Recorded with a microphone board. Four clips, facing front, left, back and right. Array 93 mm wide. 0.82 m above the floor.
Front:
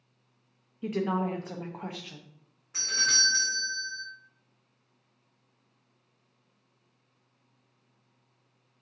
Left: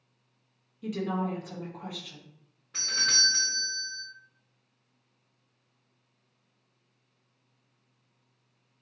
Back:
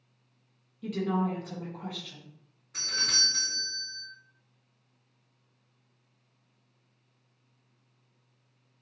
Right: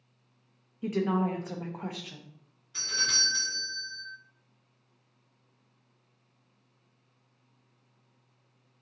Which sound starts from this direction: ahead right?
A woman speaking, at 0.8 s.